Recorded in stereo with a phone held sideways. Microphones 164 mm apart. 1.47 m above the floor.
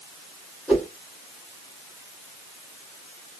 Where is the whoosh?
5° left (ahead or behind), 1.2 m.